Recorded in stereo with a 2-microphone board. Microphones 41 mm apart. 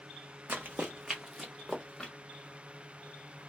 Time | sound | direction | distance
0.5 | running footsteps | 55° right (ahead or behind) | 0.6 m